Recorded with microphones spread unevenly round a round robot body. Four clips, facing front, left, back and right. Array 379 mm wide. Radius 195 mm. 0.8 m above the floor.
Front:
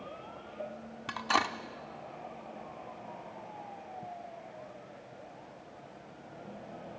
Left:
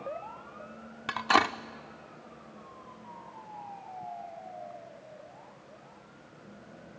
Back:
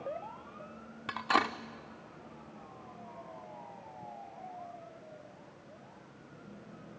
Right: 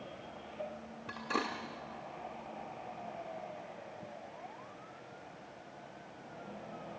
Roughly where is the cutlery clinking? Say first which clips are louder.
Left 11 dB, back 1 dB; left.